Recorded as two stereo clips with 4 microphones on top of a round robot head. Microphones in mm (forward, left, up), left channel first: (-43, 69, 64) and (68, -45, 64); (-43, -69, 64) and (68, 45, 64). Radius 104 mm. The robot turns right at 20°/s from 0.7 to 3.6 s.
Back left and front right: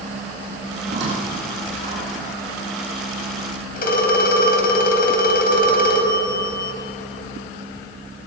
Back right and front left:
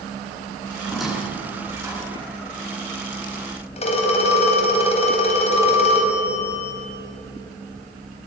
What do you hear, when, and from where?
0.8 s a squeak: 45° right, 8.5 m; by 2.3 s 20° right, 8.5 m
3.8 s a phone ringing: 170° left, 4 m